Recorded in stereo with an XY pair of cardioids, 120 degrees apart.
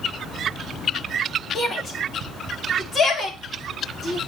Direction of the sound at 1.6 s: 30° left.